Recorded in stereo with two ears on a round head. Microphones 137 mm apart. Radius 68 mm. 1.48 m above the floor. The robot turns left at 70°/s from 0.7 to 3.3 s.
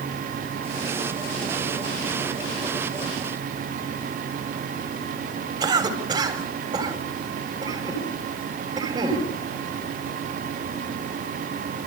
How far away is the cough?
About 8 m.